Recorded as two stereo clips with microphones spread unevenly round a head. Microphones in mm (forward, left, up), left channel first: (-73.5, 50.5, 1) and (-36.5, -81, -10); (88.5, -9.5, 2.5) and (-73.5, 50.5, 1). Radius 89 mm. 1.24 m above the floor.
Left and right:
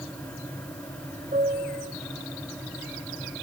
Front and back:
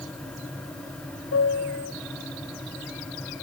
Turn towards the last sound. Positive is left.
turn(degrees=-15)